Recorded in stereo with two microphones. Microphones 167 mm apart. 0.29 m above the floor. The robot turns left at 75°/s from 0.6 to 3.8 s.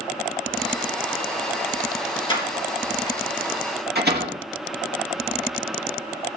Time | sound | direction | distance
2.3 | a door slam | 30° left (ahead or behind) | 4 m